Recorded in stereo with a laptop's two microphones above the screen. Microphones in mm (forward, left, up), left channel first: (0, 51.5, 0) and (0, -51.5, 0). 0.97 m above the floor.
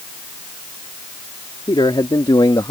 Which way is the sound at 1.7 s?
55° left (ahead or behind).